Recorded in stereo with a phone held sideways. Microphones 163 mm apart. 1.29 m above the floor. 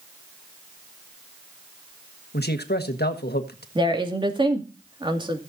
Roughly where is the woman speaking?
Right.